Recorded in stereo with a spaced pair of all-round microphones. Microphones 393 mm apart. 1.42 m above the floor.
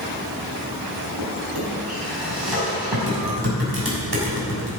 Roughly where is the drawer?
Right.